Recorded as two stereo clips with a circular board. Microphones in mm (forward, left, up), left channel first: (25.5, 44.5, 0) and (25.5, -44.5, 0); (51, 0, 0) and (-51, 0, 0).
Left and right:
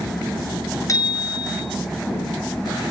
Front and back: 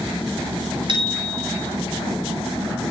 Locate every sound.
0.9 s a bicycle bell: 140° left, 6 m